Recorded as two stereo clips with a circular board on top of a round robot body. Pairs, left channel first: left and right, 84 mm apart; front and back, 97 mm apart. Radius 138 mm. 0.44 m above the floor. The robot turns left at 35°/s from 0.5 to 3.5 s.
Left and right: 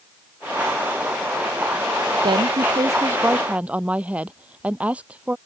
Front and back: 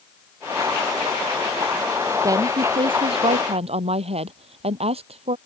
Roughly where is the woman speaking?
Behind right.